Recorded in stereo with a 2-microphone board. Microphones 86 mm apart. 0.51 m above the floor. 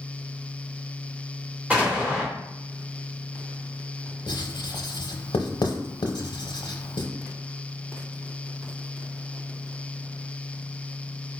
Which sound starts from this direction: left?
Writing, at 4.3 s.